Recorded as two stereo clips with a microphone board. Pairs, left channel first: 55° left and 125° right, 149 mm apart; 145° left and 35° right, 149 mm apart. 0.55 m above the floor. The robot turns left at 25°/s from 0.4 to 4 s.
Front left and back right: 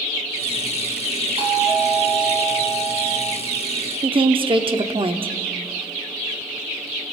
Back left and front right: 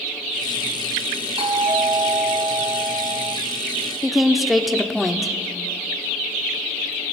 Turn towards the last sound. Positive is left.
turn(degrees=-125)